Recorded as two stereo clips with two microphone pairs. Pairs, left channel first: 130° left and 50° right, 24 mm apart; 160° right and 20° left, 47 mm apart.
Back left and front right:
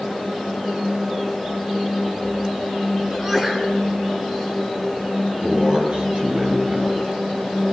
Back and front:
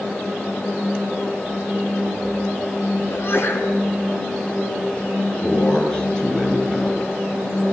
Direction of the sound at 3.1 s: 120° right.